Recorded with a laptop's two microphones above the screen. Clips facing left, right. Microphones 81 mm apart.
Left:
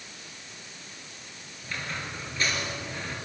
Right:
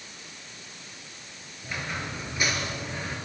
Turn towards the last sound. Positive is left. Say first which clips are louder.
# right 2 dB
turn(degrees=-15)  # may be behind; listen again after turning